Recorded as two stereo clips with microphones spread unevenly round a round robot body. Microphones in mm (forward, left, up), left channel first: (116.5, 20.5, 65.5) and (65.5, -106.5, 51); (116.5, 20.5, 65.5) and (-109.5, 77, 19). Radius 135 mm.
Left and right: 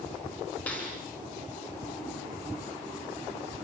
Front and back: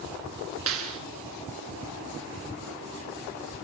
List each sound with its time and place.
0.7 s a clap: 150° left, 4.5 m